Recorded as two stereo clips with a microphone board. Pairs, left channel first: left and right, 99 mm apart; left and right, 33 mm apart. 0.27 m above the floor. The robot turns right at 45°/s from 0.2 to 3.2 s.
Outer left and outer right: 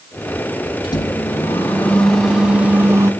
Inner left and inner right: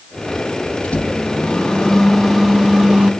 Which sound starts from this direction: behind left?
A microwave, at 0.8 s.